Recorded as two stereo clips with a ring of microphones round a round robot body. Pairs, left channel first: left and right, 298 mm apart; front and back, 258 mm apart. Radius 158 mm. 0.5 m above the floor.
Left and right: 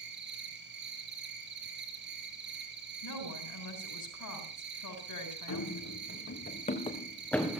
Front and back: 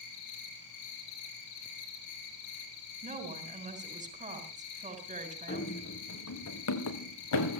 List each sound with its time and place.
0.0 s an insect: 35° right, 4 m
3.0 s a woman speaking: 115° left, 7 m
5.5 s running footsteps: 50° left, 3.5 m; by 7.6 s 5° right, 3 m